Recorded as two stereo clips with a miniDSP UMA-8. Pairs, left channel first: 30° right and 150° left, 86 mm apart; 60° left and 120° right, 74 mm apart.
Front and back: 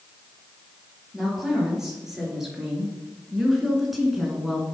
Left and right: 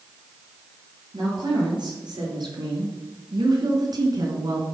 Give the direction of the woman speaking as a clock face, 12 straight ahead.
4 o'clock.